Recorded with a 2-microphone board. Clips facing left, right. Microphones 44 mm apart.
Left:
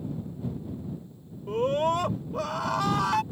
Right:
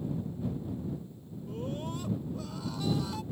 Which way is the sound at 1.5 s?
70° left (ahead or behind).